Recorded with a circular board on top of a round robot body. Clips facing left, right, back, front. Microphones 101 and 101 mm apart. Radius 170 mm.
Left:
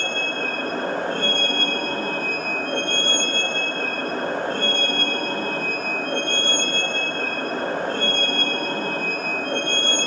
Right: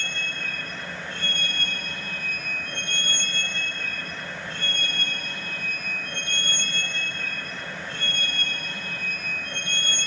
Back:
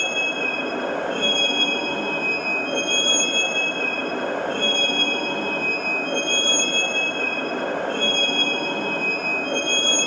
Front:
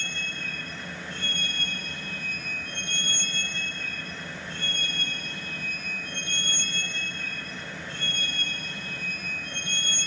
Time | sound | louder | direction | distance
0.0 | a vehicle | left 9 dB, back 12 dB | 140° left | ?